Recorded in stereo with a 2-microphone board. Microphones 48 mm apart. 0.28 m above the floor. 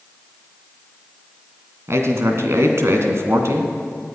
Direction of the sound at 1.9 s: 65° right (ahead or behind).